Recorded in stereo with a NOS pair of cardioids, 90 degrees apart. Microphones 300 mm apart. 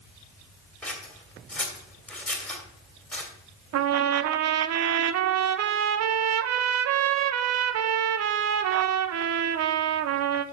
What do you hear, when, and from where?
0.8 s scissors: 5° left, 2.5 m
3.7 s a trumpet: 60° right, 0.7 m